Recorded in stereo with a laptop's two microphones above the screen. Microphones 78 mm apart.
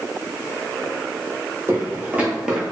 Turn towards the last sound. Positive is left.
turn(degrees=0)  # may be behind; listen again after turning